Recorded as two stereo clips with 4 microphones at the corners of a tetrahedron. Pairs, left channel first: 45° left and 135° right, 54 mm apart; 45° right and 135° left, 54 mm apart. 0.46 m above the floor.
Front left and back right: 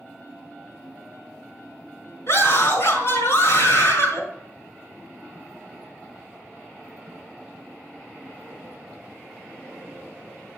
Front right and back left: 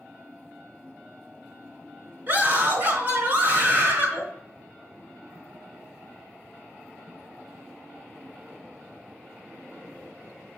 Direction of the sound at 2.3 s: 80° left.